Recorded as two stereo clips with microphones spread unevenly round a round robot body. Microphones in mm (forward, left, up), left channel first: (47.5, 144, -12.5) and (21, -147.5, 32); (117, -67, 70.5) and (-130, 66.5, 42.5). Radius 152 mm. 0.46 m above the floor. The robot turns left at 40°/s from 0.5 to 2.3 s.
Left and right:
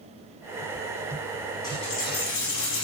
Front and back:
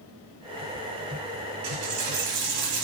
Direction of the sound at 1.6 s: 165° left.